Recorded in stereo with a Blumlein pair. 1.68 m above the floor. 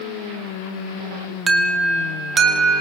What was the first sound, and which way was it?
An alarm, 20° right.